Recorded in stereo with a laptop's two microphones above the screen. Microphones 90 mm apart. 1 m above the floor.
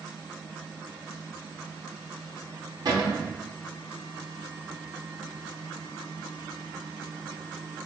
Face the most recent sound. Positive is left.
turn(degrees=-45)  # may be behind; listen again after turning